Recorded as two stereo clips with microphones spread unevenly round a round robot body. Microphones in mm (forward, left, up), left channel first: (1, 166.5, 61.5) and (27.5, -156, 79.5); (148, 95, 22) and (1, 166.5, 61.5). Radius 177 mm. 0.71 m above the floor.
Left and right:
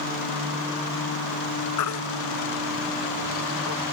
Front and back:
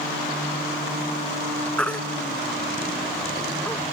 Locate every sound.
1.8 s a baby crying: 60° left